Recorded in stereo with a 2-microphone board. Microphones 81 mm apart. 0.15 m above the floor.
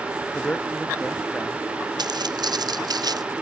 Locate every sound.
0.3 s a man speaking: 15° left (ahead or behind)
2.0 s footsteps: 60° right (ahead or behind); by 3.3 s 55° right (ahead or behind)